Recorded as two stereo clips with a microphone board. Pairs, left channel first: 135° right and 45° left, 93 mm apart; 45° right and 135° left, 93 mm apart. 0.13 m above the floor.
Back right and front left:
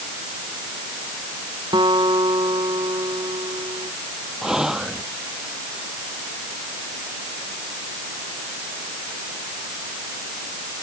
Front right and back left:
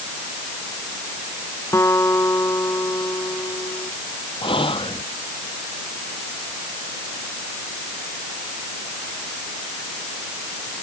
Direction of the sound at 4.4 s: 40° right.